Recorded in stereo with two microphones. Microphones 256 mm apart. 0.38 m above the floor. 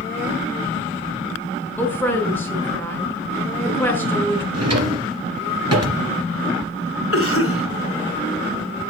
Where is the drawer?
85° right, 2.5 m.